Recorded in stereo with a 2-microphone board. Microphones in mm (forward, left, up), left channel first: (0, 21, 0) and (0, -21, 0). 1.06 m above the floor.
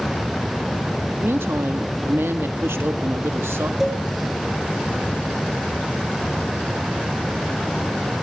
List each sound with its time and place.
1.2 s a woman speaking: 75° right (ahead or behind), 1.6 m
3.8 s a cowbell: 10° right (ahead or behind), 6.5 m